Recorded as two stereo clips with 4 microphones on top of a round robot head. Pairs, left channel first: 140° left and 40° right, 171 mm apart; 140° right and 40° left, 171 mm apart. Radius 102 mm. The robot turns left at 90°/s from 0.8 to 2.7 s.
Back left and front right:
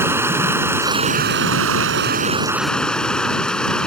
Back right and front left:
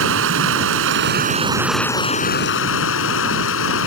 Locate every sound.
0.0 s running water: 35° left; by 3.9 s 135° right